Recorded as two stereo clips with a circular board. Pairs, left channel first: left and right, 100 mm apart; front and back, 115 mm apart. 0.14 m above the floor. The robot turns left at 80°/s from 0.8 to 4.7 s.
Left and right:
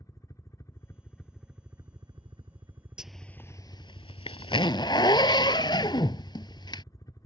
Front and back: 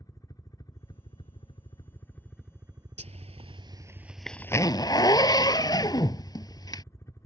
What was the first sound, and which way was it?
A helicopter, 45° left.